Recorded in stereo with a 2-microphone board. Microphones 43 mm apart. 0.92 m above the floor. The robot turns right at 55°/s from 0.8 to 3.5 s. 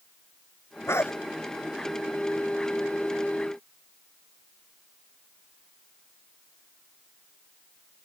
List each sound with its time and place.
0.9 s a dog barking: 85° left; by 1.1 s 80° left